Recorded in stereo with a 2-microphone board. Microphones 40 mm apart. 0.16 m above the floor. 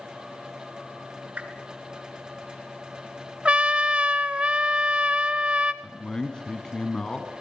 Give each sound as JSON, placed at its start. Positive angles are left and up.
{"t": 1.4, "sound": "a whoosh", "side_deg": -35, "distance_m": 2.5}
{"t": 3.5, "sound": "a trumpet", "side_deg": -30, "distance_m": 0.7}
{"t": 5.8, "sound": "a man speaking", "side_deg": 20, "distance_m": 1.3}